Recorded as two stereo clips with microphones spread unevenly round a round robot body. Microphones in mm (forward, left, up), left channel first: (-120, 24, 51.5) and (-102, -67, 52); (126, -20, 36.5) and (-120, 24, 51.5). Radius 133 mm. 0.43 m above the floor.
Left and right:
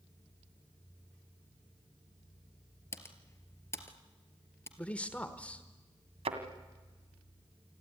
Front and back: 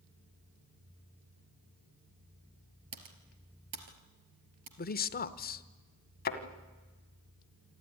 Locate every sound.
2.9 s typing on a keyboard: 160° left, 3 m
4.8 s a man speaking: 25° left, 1.1 m
6.2 s a thud: 65° right, 1.8 m